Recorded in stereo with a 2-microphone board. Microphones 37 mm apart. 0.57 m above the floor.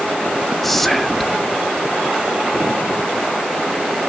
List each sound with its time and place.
0.6 s whispering: 5° left (ahead or behind), 1.1 m